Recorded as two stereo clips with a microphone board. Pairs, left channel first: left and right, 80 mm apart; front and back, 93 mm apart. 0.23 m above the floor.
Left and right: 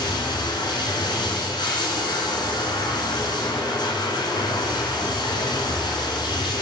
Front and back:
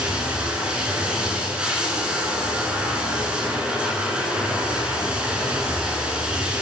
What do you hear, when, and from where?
0.0 s running water: 100° left, 0.9 m